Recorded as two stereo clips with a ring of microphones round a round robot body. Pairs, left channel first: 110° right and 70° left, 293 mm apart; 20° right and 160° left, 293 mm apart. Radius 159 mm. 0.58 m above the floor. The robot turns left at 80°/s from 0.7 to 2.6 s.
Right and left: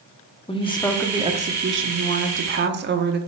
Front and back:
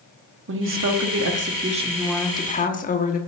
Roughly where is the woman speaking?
Behind.